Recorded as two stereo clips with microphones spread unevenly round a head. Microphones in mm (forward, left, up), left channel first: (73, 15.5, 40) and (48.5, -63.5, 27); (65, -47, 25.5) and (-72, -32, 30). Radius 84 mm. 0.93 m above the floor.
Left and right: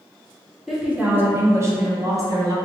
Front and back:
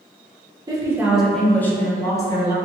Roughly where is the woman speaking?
Behind.